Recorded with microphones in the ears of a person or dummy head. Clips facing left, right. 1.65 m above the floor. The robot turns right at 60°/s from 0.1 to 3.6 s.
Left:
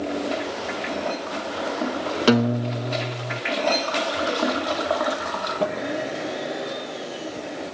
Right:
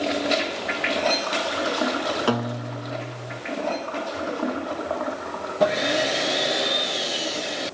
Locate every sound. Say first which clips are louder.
2.3 s a guitar: left 6 dB; 30° left, 0.8 m; by 3.4 s 100° left, 0.8 m